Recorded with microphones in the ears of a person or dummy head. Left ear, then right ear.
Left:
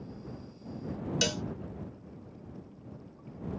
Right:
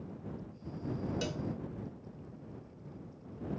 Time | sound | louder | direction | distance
1.2 | a cowbell | left 13 dB | 40° left (ahead or behind) | ?